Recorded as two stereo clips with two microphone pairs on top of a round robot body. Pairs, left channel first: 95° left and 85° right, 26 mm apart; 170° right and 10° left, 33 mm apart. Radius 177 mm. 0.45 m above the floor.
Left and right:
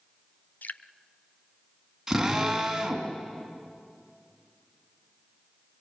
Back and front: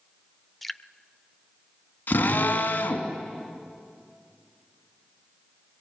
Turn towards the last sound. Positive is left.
turn(degrees=-160)